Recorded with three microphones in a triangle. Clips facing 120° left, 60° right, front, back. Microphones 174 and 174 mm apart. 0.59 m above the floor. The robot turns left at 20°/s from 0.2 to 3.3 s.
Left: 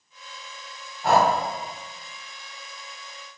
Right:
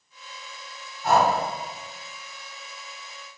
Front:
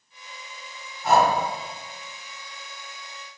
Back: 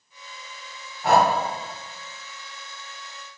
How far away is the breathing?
About 0.6 m.